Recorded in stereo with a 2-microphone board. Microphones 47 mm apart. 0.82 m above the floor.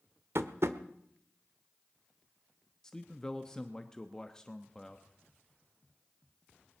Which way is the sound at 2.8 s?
15° left (ahead or behind).